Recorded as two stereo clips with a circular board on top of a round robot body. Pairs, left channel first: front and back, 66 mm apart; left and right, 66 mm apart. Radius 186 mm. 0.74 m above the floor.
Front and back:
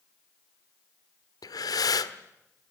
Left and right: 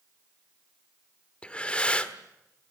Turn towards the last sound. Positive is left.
turn(degrees=15)